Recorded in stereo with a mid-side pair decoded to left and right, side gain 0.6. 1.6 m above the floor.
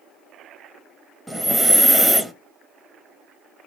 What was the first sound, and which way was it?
Breathing, 5° right.